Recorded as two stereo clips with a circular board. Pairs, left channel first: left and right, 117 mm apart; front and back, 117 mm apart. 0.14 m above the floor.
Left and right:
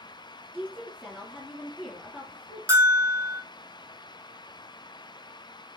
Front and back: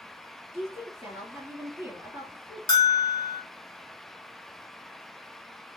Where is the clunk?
No clunk in this recording.